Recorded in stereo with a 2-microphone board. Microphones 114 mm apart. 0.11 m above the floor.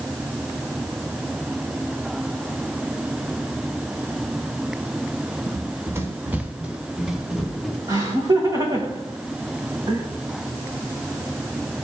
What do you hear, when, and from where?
5.5 s running footsteps: 30° right (ahead or behind), 2 m; by 7.8 s centre (ahead or behind), 4 m
7.9 s laughter: 40° right (ahead or behind), 6 m